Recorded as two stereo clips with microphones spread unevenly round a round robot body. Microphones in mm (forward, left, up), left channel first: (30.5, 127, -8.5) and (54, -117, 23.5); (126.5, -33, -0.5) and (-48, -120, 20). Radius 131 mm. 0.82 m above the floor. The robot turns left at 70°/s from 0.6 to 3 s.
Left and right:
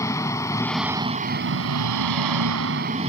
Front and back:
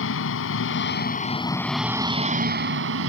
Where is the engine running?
15° left; by 3.1 s 150° right.